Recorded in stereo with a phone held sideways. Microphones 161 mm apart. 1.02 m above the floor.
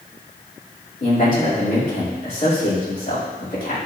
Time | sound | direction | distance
1.0 | a man speaking | 55° left (ahead or behind) | 2.5 m